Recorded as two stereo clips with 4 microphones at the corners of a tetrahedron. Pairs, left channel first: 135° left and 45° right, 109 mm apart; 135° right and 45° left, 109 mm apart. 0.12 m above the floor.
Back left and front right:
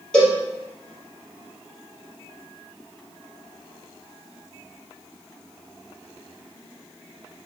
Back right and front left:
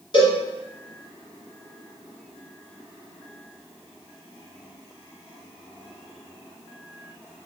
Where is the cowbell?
145° right, 1.9 m.